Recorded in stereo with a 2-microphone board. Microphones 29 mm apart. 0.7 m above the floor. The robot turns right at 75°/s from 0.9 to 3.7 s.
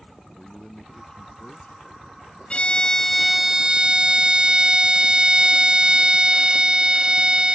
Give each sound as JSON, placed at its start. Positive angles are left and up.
{"t": 0.3, "sound": "a man speaking", "azimuth_deg": 20}
{"t": 2.5, "sound": "a violin", "azimuth_deg": 125}